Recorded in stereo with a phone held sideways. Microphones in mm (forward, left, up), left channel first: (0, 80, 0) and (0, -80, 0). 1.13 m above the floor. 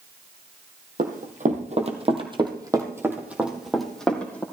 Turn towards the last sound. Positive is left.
turn(degrees=10)  # may be behind; listen again after turning